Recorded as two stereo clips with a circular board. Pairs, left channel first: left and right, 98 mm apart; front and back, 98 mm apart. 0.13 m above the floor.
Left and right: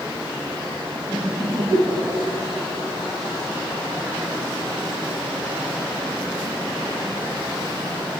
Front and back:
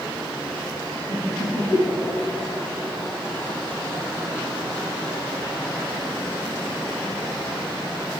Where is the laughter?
5° left, 2.5 m; by 2.5 s 10° right, 1.9 m.